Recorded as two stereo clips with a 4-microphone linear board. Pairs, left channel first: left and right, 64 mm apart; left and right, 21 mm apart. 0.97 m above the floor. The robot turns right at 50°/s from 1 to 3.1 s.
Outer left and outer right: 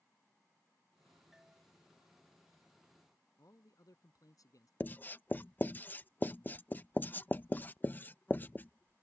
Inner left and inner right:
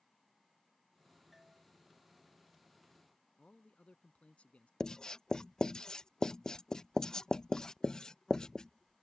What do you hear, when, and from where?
1.3 s a doorbell: 10° right (ahead or behind); by 1.6 s 25° right (ahead or behind)
3.4 s a man speaking: 65° left (ahead or behind)
4.8 s writing: 30° left (ahead or behind)